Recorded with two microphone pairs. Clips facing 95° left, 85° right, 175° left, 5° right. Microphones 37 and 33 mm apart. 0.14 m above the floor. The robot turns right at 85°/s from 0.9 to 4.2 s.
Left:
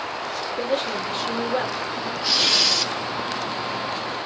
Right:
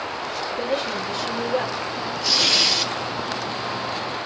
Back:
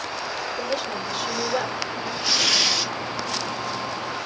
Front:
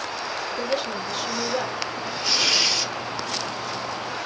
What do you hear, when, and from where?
0.5 s a woman speaking: 75° left, 2.5 m; by 2.1 s 175° left, 2.5 m
2.2 s tearing paper: 160° left, 2 m; by 2.9 s 140° right, 2 m